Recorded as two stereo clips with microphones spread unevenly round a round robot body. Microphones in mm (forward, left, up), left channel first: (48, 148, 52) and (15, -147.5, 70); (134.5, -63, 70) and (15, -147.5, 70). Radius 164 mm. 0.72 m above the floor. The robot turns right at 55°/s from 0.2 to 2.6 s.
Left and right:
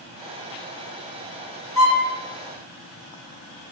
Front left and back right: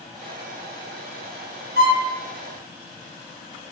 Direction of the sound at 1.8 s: 170° right.